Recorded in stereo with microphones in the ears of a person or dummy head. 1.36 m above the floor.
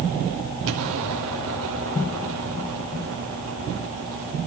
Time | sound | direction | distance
0.7 | an explosion | 70° right (ahead or behind) | 2.5 m